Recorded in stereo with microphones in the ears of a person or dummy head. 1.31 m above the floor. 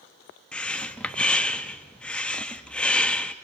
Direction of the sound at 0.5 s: 10° left (ahead or behind).